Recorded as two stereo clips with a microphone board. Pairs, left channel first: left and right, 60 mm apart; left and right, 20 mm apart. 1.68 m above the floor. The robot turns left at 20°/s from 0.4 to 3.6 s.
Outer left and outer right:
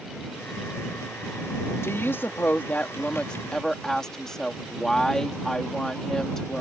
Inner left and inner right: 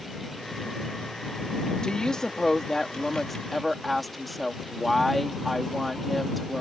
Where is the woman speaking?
45° left; by 6.6 s 10° left.